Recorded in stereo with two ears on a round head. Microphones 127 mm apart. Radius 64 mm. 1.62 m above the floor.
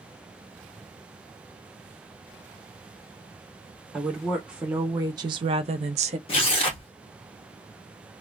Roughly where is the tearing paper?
Left.